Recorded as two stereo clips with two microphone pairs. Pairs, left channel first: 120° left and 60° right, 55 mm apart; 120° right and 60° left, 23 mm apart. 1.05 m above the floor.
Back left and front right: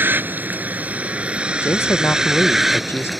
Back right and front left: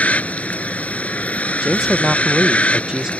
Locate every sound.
0.0 s a vehicle: 115° right; by 3.2 s 150° right
1.6 s a man speaking: 105° left